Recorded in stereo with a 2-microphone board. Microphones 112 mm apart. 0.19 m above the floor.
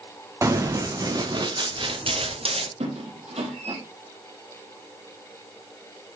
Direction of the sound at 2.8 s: 70° right (ahead or behind).